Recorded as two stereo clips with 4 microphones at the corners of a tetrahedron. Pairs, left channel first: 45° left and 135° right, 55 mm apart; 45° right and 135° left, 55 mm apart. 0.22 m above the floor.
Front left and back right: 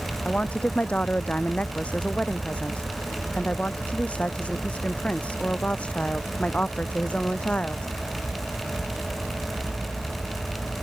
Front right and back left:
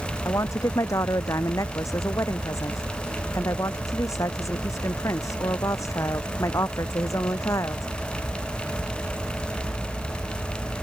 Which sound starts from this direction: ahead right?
A woman speaking, at 0.2 s.